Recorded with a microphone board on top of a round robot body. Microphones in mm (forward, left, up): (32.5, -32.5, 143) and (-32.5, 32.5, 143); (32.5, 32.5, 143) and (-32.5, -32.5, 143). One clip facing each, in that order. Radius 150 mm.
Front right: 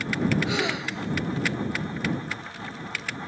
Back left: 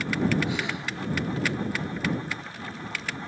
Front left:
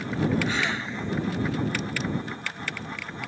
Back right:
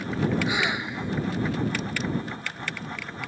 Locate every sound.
0.5 s a gasp: 55° right